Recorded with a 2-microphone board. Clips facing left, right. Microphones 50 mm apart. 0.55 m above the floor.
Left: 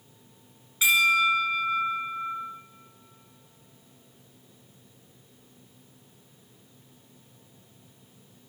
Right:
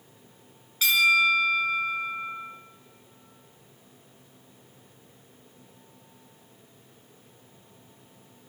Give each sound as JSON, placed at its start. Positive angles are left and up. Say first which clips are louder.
{"t": 0.8, "sound": "a bell", "louder": "even", "side_deg": 15, "distance_m": 7.0}